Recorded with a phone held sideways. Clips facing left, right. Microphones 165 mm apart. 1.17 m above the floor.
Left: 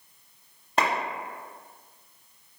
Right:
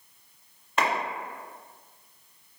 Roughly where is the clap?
Left.